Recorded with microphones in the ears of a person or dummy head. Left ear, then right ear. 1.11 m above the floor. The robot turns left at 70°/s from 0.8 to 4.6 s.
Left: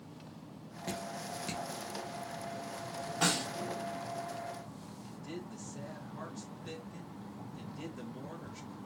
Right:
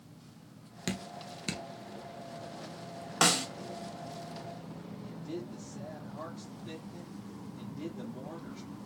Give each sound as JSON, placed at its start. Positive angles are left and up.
{"t": 0.9, "sound": "dripping", "side_deg": -40, "distance_m": 0.6}
{"t": 3.2, "sound": "a snare drum", "side_deg": -60, "distance_m": 1.0}
{"t": 5.0, "sound": "a man speaking", "side_deg": 55, "distance_m": 1.1}